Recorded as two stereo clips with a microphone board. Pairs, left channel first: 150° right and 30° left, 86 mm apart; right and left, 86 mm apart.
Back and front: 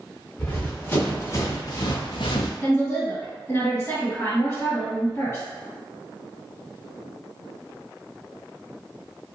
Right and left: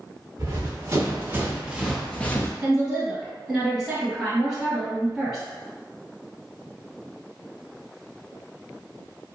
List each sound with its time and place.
0.4 s running footsteps: 140° left, 1.5 m; by 2.5 s 150° right, 0.6 m
2.6 s a woman speaking: 170° left, 1.9 m